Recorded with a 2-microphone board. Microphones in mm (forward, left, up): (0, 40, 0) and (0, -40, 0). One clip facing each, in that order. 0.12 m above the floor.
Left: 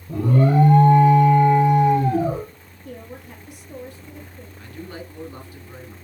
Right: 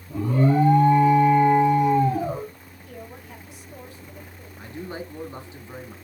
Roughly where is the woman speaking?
Left.